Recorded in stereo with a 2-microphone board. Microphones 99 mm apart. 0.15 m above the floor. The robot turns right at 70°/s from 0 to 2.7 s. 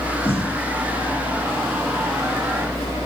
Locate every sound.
0.2 s a snare drum: 65° left (ahead or behind), 9 m; by 0.6 s 80° left, 9 m